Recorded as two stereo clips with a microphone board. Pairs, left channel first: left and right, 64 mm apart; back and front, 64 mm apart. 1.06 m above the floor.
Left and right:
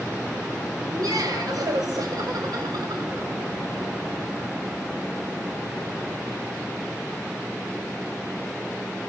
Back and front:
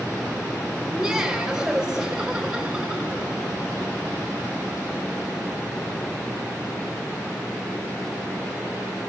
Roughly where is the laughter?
Right.